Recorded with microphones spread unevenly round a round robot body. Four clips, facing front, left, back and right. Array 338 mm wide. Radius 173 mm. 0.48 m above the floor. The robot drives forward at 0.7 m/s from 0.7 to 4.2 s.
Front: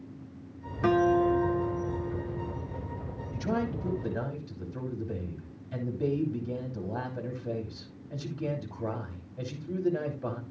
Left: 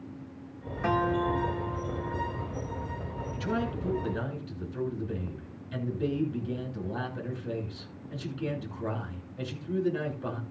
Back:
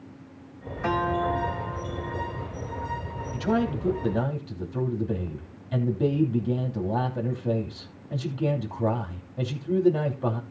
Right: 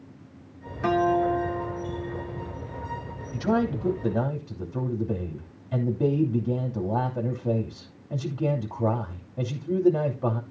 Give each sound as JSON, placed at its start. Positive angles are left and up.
{"t": 0.8, "sound": "a guitar", "azimuth_deg": -15, "distance_m": 2.5}
{"t": 3.3, "sound": "a man speaking", "azimuth_deg": -115, "distance_m": 2.5}